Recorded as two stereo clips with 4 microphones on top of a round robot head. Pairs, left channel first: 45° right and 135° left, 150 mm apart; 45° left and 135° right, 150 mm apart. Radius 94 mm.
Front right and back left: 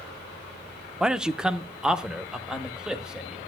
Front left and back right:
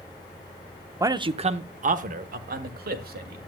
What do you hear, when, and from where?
1.0 s a man speaking: 145° right, 0.7 m; by 3.4 s 140° right, 2 m